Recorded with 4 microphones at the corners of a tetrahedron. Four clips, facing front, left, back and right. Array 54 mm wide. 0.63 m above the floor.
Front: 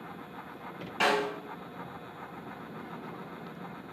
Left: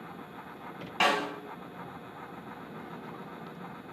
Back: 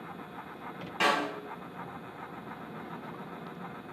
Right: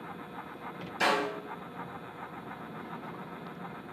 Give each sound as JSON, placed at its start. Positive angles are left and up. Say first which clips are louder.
{"t": 1.0, "sound": "a snare drum", "louder": "left 1 dB, even", "azimuth_deg": 95, "distance_m": 1.7}